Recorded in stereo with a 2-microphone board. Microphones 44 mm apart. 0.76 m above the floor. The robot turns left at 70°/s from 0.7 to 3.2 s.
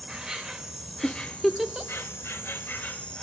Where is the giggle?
40° left (ahead or behind), 0.6 m; by 1.9 s 25° right (ahead or behind), 0.6 m.